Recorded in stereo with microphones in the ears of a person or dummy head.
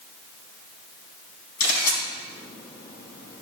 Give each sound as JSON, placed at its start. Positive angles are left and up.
{"t": 1.6, "sound": "a camera shutter", "side_deg": 45, "distance_m": 5.0}